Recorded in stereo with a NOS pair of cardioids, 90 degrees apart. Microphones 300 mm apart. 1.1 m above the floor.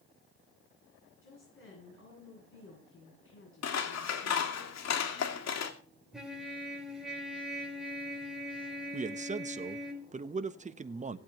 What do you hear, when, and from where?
1.2 s a woman speaking: 45° left, 9.5 m
3.6 s scissors: 60° left, 2.5 m
6.1 s a trumpet: straight ahead, 4.5 m
8.9 s a man speaking: 25° right, 1.3 m